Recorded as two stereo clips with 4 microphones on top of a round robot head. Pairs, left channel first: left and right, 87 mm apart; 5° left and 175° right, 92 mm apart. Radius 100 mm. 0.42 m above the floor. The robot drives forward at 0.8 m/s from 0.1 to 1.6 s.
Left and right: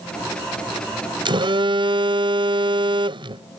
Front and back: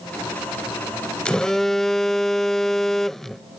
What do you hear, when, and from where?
1.2 s a phone buzzing: 75° right; by 3.6 s 80° right